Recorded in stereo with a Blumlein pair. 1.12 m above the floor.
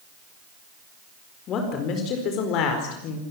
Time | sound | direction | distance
1.5 | a woman speaking | 30° left | 4.5 m